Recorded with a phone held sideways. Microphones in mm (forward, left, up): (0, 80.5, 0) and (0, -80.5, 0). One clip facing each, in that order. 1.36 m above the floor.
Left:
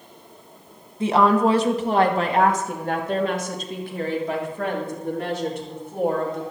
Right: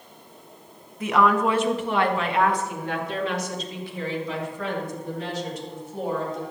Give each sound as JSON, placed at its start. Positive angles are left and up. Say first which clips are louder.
{"t": 1.0, "sound": "a woman speaking", "louder": "left 3 dB", "side_deg": 25, "distance_m": 1.5}